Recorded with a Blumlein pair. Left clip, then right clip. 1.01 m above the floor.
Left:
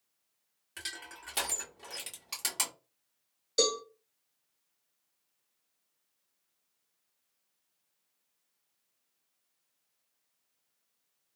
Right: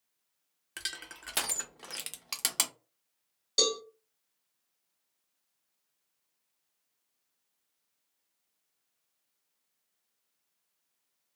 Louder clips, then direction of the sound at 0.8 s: Right 3 dB; 25° right.